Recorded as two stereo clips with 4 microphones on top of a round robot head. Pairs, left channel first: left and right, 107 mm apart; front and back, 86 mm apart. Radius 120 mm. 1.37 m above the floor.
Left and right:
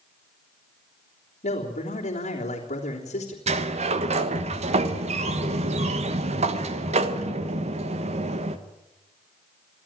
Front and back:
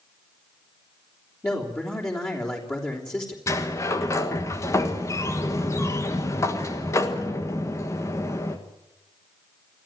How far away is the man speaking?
About 3.5 m.